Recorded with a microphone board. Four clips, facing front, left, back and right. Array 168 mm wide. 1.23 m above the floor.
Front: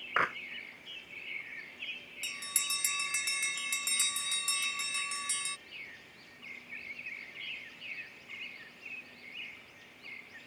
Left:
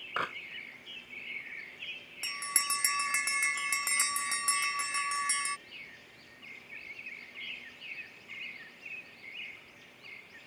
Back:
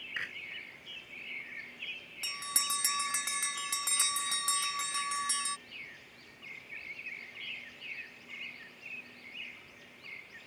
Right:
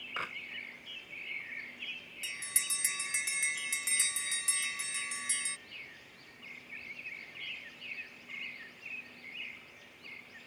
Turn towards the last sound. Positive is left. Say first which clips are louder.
# left 9 dB, back 6 dB
turn(degrees=120)